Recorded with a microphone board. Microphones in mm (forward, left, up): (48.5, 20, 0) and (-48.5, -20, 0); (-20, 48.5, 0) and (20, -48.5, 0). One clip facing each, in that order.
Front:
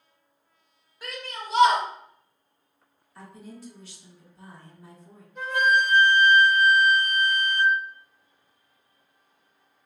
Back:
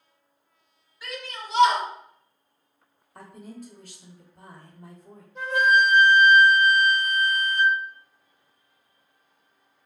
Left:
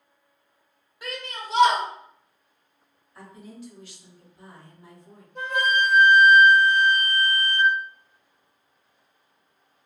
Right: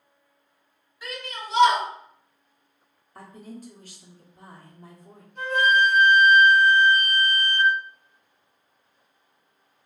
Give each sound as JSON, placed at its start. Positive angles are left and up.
{"t": 1.0, "sound": "a shout", "azimuth_deg": 70, "distance_m": 1.2}
{"t": 3.1, "sound": "a woman speaking", "azimuth_deg": -115, "distance_m": 0.7}
{"t": 5.3, "sound": "a flute", "azimuth_deg": 140, "distance_m": 1.6}